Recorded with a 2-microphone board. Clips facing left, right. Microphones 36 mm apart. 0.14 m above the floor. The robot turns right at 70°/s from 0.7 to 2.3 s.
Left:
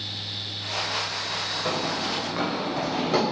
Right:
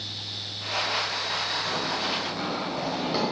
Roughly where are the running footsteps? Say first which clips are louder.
Left 1 dB; left.